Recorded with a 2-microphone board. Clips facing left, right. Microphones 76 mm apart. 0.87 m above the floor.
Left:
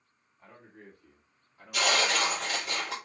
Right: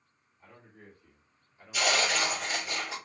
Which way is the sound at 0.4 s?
65° left (ahead or behind).